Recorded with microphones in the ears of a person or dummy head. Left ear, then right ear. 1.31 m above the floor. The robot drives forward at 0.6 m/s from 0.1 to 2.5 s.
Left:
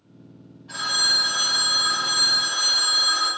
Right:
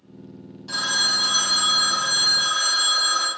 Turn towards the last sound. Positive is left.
turn(degrees=-35)  # may be behind; listen again after turning